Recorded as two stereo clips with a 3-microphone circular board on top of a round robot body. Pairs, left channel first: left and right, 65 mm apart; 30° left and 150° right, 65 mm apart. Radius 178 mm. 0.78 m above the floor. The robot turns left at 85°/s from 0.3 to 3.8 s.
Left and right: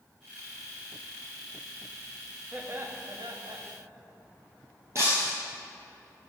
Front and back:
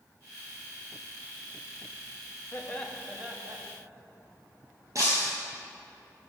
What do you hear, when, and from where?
2.5 s laughter: 20° right, 1.3 m; by 3.6 s 110° right, 1.3 m
5.0 s breaking glass: 125° right, 0.8 m